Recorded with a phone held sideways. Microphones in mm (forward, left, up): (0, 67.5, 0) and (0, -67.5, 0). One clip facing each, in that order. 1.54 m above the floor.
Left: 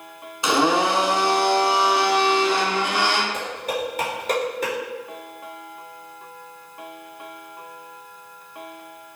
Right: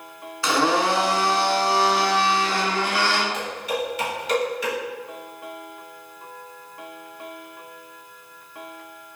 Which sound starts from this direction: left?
Dishes clattering, at 3.3 s.